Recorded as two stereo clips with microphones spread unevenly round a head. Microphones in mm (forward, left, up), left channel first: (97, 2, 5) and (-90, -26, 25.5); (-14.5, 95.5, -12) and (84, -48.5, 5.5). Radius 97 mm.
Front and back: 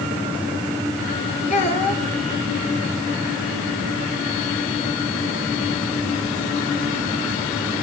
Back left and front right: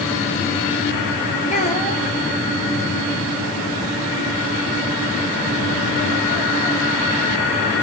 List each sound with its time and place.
1.5 s a child speaking: 70° left, 2.5 m